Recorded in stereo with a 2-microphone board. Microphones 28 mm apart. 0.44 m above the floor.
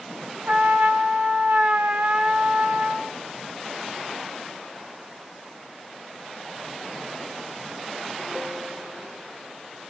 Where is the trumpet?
55° right (ahead or behind), 0.8 m.